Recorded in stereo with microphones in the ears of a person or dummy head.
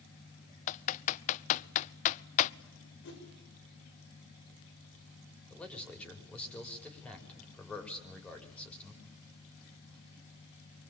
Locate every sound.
0.7 s typing on a keyboard: 40° left (ahead or behind), 0.6 m
3.0 s a whoosh: 65° left (ahead or behind), 7.5 m
5.5 s a man speaking: 5° left (ahead or behind), 5 m